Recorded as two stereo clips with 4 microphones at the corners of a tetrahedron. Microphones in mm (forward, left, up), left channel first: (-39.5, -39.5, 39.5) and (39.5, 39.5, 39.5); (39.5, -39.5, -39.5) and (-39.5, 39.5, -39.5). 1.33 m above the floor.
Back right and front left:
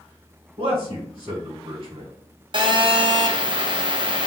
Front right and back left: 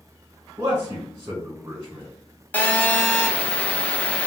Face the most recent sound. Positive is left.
turn(degrees=30)